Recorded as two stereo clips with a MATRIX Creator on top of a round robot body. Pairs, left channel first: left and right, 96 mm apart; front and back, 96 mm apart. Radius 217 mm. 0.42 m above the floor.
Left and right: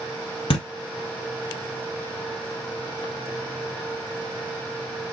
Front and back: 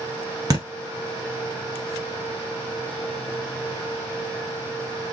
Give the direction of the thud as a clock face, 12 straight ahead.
8 o'clock.